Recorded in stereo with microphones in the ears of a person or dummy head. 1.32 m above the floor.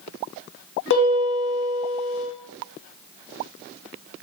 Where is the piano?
60° left (ahead or behind), 0.7 m.